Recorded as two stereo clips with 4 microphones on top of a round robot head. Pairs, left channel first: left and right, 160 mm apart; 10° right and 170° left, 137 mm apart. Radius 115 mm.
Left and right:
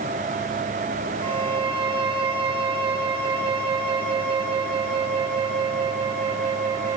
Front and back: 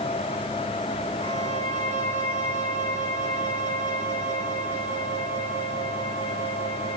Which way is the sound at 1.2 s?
145° right.